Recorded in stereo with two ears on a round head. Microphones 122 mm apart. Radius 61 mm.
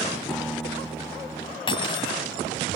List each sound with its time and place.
0.3 s a guitar: centre (ahead or behind)
1.7 s cutlery clinking: 40° left (ahead or behind)